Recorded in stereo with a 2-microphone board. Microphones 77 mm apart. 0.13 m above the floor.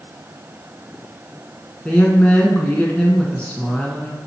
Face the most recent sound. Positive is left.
turn(degrees=15)  # may be behind; listen again after turning